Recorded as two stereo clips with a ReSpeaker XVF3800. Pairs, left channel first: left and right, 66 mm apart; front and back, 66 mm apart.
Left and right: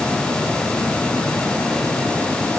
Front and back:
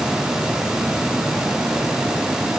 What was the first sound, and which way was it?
Only background noise.